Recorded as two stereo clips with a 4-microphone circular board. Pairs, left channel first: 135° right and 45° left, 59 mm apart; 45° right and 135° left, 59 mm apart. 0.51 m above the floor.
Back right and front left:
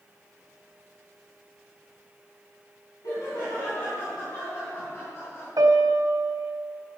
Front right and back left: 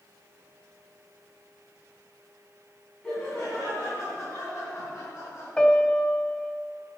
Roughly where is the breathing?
No breathing in this recording.